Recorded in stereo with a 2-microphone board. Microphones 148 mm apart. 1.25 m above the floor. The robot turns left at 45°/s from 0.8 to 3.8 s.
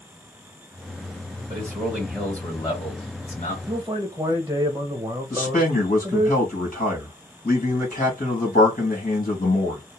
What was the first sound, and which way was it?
A man speaking, 145° right.